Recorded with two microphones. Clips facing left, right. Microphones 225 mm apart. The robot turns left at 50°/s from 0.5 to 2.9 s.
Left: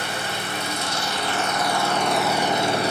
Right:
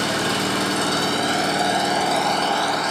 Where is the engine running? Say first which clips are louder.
Right 8 dB; 95° right, 2.5 m; by 2.9 s 145° left, 2.5 m.